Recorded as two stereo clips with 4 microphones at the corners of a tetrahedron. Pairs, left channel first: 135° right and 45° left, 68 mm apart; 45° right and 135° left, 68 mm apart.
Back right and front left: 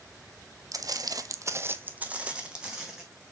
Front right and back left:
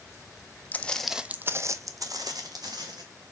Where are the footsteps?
20° left, 0.6 m; by 3.0 s 125° left, 1.5 m.